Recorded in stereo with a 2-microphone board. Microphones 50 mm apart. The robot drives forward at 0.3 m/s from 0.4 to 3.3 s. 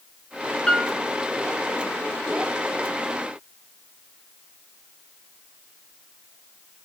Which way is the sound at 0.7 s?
10° left (ahead or behind).